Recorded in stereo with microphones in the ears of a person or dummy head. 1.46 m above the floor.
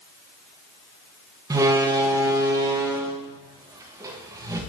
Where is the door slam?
20° right (ahead or behind), 0.8 m.